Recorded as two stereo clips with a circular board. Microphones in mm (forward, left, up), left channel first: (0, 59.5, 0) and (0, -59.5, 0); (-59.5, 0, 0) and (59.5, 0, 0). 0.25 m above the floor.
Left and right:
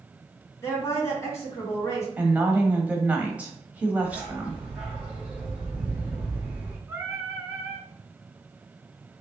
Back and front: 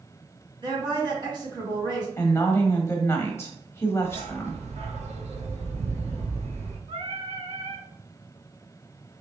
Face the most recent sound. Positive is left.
turn(degrees=-20)